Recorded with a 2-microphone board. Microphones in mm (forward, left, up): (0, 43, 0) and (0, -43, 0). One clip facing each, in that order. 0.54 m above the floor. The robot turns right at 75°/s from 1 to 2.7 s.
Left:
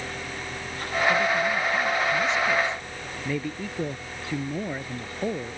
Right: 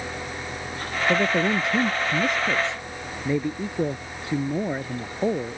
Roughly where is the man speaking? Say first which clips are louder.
Right 4 dB; behind right.